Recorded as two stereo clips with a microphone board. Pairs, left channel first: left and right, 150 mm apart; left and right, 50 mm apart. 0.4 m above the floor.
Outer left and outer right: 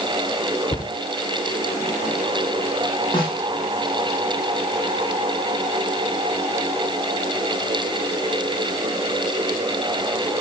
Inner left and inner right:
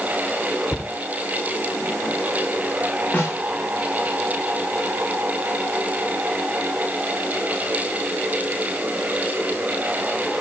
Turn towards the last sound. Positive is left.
turn(degrees=35)  # may be behind; listen again after turning